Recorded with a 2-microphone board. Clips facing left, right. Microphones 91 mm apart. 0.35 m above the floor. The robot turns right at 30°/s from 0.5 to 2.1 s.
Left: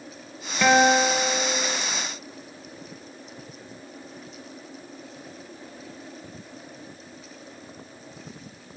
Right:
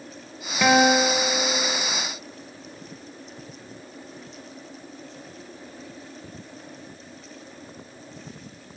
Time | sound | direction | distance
0.6 | a guitar | 5° right | 0.7 m